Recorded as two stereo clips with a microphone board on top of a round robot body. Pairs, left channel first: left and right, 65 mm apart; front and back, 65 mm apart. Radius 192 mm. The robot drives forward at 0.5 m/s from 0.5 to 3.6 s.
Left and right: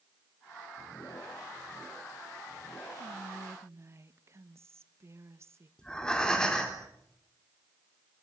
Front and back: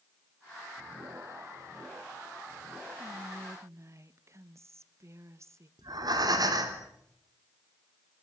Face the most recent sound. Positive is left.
turn(degrees=170)